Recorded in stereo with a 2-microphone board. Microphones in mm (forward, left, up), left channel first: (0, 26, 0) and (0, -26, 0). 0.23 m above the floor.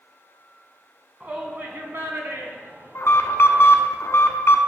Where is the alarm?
55° left (ahead or behind), 1.1 m.